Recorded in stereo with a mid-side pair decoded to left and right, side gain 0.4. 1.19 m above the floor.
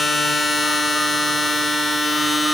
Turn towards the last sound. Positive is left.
turn(degrees=20)